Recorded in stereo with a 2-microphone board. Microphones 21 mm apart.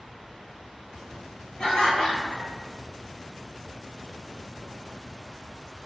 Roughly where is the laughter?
Left.